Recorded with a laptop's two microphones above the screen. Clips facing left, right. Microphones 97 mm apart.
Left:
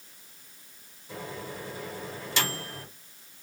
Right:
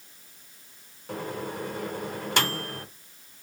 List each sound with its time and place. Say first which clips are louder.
1.1 s a microwave: right 5 dB; 60° right (ahead or behind), 0.9 m